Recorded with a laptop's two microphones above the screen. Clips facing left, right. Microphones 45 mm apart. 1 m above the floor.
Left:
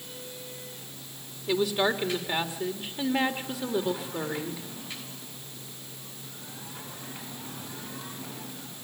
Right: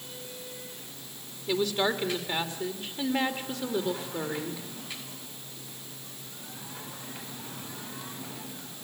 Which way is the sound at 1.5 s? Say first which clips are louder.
Left 2 dB; 10° left (ahead or behind).